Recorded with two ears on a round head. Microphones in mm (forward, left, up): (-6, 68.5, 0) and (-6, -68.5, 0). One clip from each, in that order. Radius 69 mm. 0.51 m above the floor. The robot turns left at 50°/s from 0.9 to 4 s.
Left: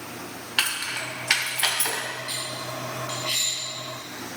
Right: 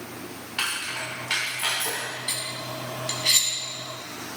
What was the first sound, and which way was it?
Keys jangling, 35° left (ahead or behind).